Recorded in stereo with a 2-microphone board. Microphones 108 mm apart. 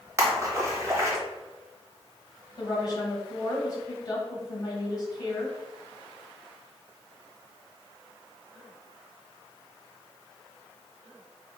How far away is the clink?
I don't hear a clink.